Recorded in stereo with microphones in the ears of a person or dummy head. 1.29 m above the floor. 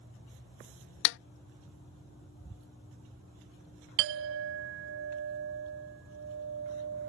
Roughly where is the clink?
Right.